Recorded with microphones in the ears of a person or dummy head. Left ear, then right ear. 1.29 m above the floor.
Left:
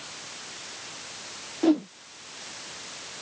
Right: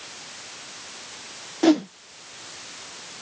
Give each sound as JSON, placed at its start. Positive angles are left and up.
{"t": 1.6, "sound": "a whoosh", "side_deg": -55}